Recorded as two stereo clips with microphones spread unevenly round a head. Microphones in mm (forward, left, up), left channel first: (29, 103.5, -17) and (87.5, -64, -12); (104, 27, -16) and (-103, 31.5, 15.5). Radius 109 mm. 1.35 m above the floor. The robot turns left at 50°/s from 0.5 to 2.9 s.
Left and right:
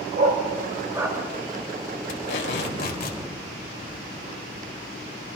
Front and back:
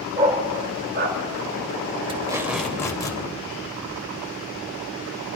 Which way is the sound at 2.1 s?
115° left.